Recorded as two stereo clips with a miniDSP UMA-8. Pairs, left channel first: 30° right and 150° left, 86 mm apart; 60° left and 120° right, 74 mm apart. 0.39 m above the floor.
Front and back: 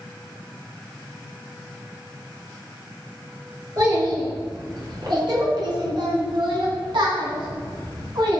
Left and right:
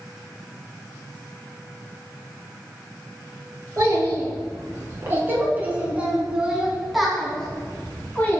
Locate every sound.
3.8 s a child speaking: 170° right, 5 m; by 8.4 s 120° left, 3 m